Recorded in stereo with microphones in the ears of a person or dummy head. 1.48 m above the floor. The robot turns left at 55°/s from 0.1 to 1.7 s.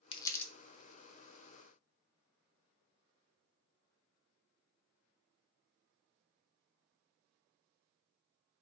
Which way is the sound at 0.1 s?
25° left (ahead or behind).